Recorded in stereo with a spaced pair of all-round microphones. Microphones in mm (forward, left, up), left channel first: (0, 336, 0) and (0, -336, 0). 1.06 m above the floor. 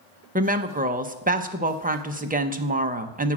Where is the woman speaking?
15° right (ahead or behind), 0.6 m.